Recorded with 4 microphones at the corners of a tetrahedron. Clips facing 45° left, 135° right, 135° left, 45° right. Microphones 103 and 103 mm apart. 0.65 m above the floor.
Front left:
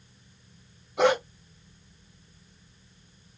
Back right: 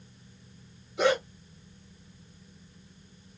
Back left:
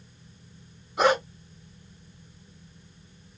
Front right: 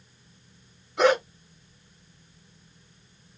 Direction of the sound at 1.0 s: 55° left.